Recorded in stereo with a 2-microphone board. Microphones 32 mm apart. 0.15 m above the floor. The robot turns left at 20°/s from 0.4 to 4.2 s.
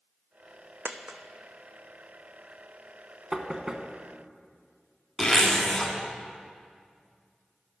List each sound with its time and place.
0.8 s a dropped coin: 60° right (ahead or behind), 0.6 m; by 1.2 s 70° right (ahead or behind), 0.6 m
3.3 s knocking: 25° right (ahead or behind), 0.7 m
5.2 s a zipper: 20° left (ahead or behind), 1.5 m